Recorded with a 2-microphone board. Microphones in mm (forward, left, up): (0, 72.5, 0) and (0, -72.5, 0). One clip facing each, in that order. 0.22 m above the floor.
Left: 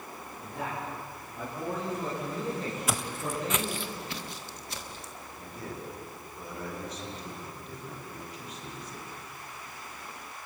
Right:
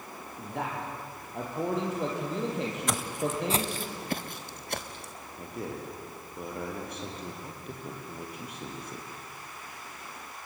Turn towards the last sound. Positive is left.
turn(degrees=-60)  # may be behind; listen again after turning